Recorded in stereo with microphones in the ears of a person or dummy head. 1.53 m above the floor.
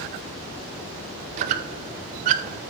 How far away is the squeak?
About 0.5 m.